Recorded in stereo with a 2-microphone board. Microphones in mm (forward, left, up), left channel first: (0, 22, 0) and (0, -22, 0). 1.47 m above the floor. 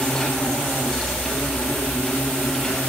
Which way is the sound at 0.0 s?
10° left (ahead or behind).